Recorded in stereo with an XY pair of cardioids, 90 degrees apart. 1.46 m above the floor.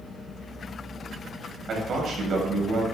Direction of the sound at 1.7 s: 60° right.